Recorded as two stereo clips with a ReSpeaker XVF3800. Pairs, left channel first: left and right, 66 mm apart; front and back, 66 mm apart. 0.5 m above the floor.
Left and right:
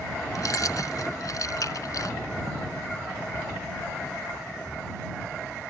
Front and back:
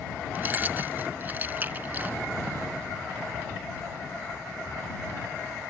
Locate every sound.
0.3 s keys jangling: 120° left